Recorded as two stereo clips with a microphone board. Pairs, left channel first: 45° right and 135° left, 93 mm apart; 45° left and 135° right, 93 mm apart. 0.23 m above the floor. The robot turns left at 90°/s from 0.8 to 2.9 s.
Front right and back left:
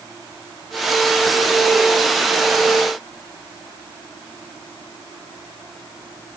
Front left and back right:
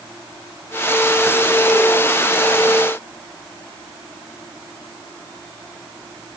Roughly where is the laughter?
No laughter in this recording.